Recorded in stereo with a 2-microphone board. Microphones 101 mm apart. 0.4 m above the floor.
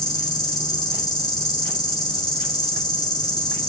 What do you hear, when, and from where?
0.0 s an insect: 45° left (ahead or behind), 1.1 m